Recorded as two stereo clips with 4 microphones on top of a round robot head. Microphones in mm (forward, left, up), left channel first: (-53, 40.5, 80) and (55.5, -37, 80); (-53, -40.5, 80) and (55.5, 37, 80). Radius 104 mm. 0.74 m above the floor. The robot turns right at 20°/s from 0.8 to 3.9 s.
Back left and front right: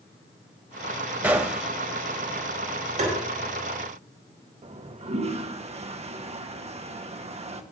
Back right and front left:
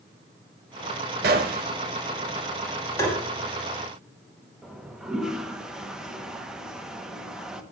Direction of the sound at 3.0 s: 75° right.